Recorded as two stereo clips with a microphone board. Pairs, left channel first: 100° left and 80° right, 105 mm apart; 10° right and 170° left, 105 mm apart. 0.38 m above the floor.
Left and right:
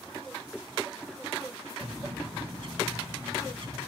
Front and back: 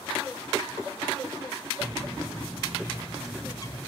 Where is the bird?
60° right, 1.3 m.